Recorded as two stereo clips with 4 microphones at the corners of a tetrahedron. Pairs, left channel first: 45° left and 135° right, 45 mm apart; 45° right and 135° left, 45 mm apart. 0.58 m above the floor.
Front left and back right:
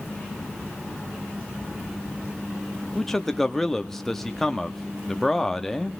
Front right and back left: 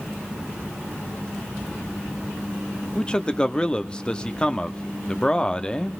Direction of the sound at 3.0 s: 25° right.